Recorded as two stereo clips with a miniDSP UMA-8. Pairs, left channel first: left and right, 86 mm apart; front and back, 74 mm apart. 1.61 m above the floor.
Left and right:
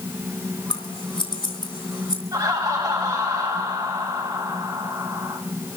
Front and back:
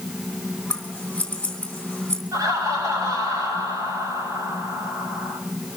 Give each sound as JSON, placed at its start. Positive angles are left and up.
{"t": 0.7, "sound": "scissors", "azimuth_deg": 75, "distance_m": 3.5}
{"t": 2.3, "sound": "laughter", "azimuth_deg": -140, "distance_m": 8.5}